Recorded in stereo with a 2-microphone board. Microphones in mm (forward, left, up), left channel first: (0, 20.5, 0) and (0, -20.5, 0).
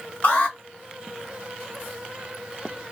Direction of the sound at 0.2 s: 50° left (ahead or behind).